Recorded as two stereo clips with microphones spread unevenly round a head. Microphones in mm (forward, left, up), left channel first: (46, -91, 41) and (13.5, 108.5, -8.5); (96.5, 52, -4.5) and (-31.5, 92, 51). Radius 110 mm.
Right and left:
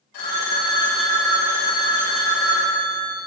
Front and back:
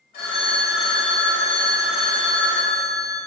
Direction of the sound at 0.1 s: 90° right.